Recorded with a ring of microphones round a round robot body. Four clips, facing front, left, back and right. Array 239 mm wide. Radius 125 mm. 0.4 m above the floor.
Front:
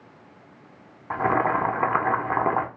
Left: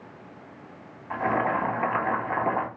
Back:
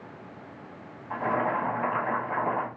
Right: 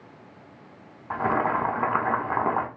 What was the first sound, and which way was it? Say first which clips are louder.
Boiling: right 1 dB, front 5 dB; 20° right.